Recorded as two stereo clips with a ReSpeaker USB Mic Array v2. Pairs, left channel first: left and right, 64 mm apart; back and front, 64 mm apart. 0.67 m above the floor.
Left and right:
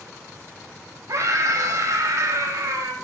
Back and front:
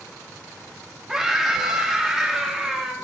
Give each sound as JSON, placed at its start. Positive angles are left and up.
{"t": 1.1, "sound": "a scream", "azimuth_deg": -80, "distance_m": 1.0}